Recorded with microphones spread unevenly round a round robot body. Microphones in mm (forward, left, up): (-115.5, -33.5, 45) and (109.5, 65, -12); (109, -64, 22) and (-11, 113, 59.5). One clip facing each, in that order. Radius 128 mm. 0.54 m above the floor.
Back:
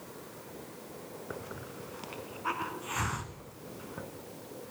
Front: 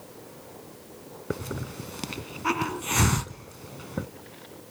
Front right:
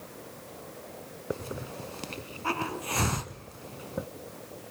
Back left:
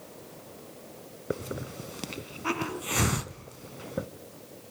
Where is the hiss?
55° left, 0.8 m.